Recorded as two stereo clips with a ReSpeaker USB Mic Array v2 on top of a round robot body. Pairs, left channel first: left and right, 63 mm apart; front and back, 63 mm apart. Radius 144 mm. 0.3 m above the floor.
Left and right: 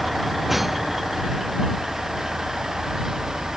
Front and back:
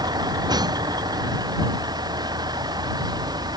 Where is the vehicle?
Straight behind; by 3.6 s 175° right.